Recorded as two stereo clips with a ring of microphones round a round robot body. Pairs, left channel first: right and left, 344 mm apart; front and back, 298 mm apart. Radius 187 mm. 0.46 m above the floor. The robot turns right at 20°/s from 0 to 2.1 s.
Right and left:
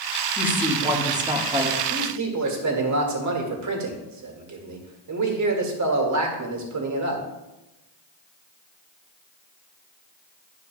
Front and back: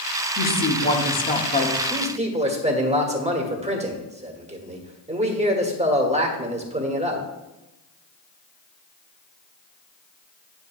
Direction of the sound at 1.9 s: 110° left.